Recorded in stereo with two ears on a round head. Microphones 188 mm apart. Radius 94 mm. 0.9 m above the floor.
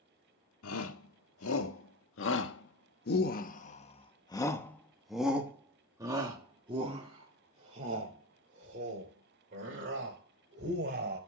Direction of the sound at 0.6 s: 75° left (ahead or behind).